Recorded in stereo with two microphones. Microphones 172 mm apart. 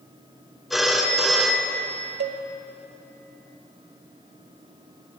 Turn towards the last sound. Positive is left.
turn(degrees=-80)